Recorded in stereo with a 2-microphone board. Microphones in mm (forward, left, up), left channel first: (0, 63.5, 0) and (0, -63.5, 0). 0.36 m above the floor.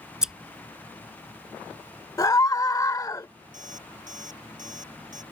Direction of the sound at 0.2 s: 5° right (ahead or behind).